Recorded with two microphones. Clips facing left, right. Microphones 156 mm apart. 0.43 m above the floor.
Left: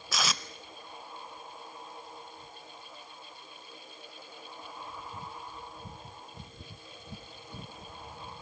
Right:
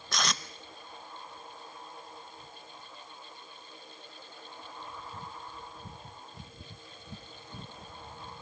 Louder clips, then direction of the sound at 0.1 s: Even; 5° left (ahead or behind).